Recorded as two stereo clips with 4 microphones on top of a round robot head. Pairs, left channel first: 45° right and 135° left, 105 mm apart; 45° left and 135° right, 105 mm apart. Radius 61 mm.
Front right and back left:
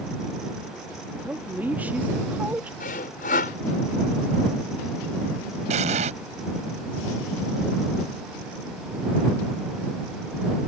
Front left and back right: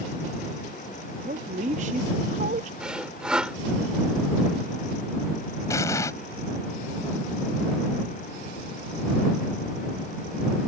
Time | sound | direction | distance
1.2 | a woman speaking | 150° right | ?
2.8 | sawing | 55° right | ?
5.7 | an explosion | 110° left | ?